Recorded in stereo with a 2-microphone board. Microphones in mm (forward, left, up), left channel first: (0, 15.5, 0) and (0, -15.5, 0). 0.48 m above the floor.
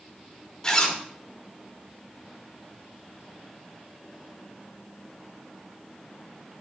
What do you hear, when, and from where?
0.6 s a zipper: 25° left (ahead or behind), 1.2 m